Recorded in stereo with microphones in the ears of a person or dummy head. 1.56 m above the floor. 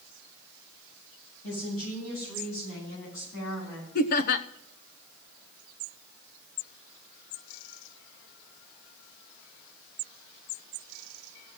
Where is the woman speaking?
70° left (ahead or behind), 8 m; by 3.9 s 65° left (ahead or behind), 11 m.